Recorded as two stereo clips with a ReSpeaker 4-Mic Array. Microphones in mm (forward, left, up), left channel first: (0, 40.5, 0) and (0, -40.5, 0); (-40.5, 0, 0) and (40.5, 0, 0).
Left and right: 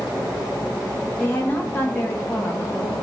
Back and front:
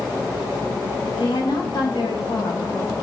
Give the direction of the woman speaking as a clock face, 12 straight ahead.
7 o'clock.